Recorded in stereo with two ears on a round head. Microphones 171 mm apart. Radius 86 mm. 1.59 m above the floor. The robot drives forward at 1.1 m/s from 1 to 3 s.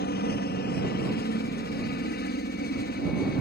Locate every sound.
0.0 s a helicopter: 55° left (ahead or behind)